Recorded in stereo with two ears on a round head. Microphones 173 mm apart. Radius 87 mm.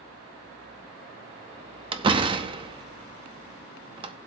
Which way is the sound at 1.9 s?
25° right (ahead or behind).